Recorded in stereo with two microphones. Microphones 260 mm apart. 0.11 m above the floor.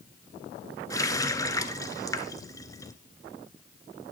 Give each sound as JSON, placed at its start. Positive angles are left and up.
{"t": 0.9, "sound": "a running tap", "side_deg": 15, "distance_m": 0.8}